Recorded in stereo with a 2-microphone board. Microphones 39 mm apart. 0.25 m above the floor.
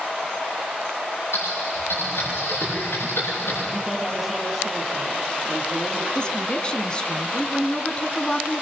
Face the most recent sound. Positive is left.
turn(degrees=25)  # may be behind; listen again after turning